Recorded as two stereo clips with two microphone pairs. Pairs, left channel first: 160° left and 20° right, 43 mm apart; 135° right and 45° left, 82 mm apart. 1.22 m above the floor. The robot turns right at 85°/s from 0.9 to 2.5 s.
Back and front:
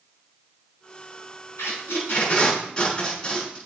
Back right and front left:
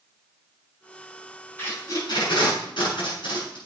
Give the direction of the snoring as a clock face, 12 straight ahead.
No snoring in this recording.